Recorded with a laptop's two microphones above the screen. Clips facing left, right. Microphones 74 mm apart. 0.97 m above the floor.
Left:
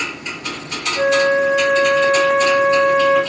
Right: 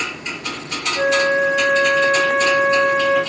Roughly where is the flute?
Centre.